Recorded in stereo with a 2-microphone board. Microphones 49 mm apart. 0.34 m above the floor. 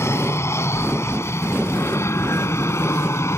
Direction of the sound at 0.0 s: 60° left (ahead or behind).